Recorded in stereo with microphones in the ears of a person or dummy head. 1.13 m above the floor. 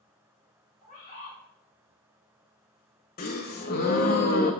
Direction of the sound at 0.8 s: 40° left (ahead or behind).